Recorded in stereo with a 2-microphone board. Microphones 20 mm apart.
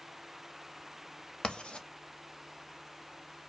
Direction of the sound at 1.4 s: 65° left (ahead or behind).